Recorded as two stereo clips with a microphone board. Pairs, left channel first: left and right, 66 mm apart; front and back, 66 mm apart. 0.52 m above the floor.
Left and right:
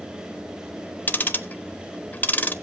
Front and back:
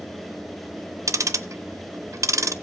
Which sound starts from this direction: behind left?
Ticking, at 1.1 s.